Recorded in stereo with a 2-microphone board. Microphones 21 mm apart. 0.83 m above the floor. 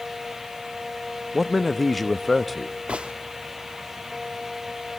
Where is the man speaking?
Centre (ahead or behind), 0.6 m.